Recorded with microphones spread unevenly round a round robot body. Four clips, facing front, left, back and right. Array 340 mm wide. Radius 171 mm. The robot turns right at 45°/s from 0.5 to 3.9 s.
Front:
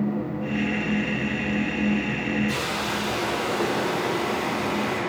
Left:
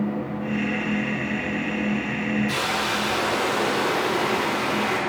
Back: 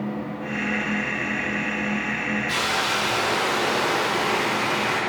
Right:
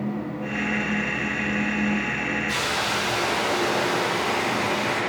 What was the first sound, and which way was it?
A hiss, 25° left.